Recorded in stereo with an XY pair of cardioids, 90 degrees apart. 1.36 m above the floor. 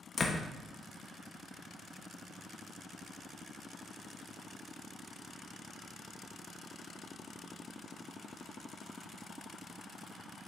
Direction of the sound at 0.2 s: 40° left.